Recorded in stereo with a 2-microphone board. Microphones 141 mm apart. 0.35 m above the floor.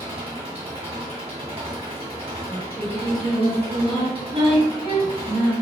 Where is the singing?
40° right (ahead or behind), 1.9 m.